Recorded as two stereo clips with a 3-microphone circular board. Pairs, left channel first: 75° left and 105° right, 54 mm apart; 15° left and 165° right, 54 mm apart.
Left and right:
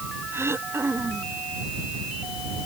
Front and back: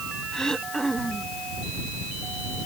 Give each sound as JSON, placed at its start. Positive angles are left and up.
{"t": 0.3, "sound": "throat clearing", "azimuth_deg": -65}